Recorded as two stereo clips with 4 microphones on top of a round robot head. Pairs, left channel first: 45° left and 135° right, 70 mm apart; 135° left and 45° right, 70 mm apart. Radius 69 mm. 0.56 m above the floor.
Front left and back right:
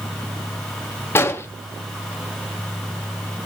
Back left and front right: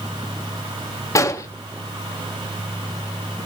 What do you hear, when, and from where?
1.1 s an explosion: 95° left, 1.8 m